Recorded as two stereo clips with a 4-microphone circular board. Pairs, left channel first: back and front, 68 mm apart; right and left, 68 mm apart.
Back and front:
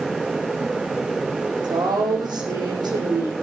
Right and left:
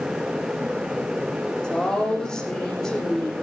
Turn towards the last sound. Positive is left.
turn(degrees=-10)